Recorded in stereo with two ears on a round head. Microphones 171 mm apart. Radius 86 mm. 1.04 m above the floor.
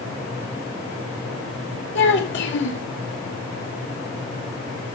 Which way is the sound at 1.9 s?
70° left (ahead or behind).